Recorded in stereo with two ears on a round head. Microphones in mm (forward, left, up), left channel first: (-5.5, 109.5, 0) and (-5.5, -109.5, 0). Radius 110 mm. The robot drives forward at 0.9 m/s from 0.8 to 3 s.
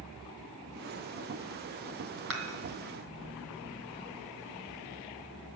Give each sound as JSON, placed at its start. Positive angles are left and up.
{"t": 2.3, "sound": "dishes clattering", "side_deg": -55, "distance_m": 2.5}